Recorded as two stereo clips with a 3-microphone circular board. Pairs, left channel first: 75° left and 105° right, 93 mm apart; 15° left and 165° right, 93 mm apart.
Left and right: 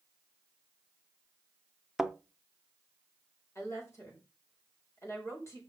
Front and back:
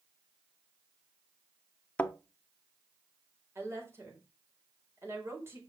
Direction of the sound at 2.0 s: 25° right.